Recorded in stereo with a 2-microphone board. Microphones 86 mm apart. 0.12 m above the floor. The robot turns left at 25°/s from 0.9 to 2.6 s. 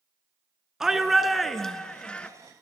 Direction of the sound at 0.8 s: 170° right.